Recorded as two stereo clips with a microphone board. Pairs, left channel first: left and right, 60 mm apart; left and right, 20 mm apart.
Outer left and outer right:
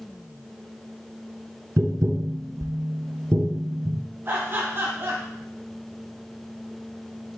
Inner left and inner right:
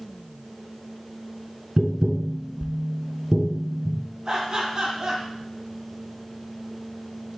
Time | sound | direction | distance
1.8 | tapping | 60° right (ahead or behind) | 0.8 m
4.2 | laughter | 40° right (ahead or behind) | 2.5 m